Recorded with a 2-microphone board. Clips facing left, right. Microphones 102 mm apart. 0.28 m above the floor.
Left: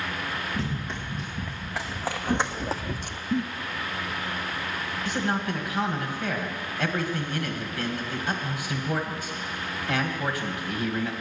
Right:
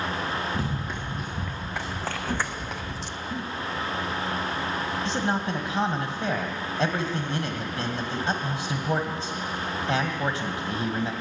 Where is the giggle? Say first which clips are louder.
Left 9 dB; 65° left (ahead or behind), 1.2 m.